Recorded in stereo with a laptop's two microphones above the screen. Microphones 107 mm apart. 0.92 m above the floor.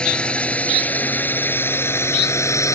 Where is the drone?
10° left (ahead or behind); by 2.8 s 30° left (ahead or behind).